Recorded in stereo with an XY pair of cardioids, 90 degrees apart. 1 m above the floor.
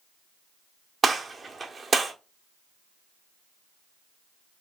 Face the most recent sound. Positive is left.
turn(degrees=-40)